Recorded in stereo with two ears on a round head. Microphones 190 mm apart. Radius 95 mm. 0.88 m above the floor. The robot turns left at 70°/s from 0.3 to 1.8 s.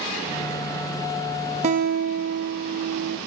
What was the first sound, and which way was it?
A guitar, 30° right (ahead or behind).